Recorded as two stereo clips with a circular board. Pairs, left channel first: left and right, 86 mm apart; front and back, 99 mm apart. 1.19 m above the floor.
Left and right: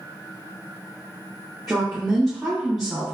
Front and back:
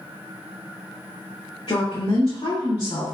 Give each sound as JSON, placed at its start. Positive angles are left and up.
{"t": 1.7, "sound": "a woman speaking", "azimuth_deg": 0, "distance_m": 1.2}